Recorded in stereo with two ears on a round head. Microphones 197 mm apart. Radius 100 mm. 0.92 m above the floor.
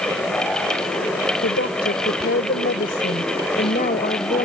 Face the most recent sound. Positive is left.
turn(degrees=30)  # may be behind; listen again after turning